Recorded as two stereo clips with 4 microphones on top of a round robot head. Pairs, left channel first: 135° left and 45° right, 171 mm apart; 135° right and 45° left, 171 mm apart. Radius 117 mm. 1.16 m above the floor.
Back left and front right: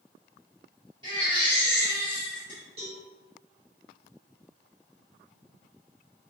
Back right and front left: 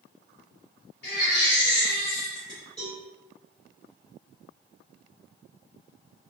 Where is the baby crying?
110° right, 1.8 m.